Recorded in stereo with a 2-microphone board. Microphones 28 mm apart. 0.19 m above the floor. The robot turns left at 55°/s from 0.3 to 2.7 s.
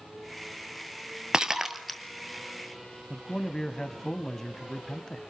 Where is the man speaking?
20° left (ahead or behind), 1.0 m.